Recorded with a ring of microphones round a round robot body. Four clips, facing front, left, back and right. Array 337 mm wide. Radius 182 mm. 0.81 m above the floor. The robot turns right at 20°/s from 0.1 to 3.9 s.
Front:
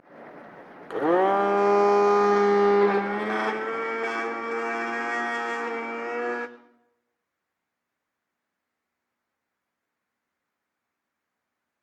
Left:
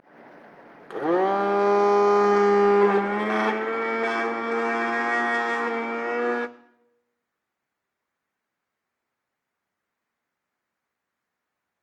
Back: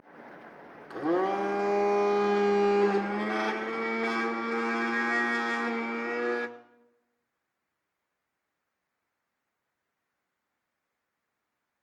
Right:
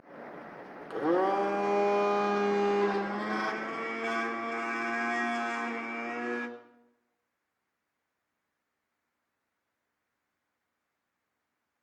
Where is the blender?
20° left, 0.5 m; by 6.5 s 80° left, 0.5 m.